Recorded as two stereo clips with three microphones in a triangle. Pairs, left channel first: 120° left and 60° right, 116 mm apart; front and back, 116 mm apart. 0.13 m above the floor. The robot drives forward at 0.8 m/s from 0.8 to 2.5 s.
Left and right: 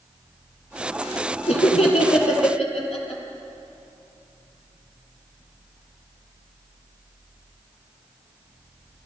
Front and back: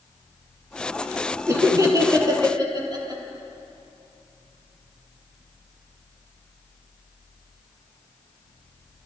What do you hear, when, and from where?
1.5 s laughter: 120° left, 3 m; by 3.2 s 130° left, 3.5 m